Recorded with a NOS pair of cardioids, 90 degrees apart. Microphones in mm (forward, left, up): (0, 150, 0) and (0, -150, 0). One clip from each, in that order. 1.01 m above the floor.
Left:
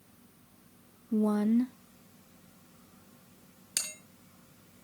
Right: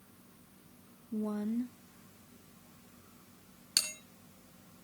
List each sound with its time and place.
1.1 s a woman speaking: 50° left, 0.6 m
3.8 s a bell: 5° right, 5 m